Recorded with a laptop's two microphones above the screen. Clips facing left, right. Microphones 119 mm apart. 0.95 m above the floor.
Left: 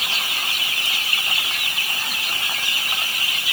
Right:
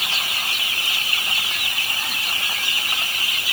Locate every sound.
Only background noise.